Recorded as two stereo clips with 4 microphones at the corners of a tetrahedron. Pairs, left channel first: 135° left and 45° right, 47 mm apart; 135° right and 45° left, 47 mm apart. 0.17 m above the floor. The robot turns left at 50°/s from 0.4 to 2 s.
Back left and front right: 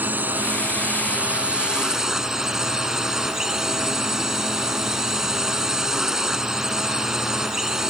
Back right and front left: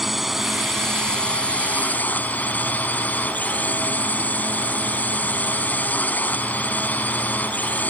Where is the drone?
40° right; by 7.9 s 120° right.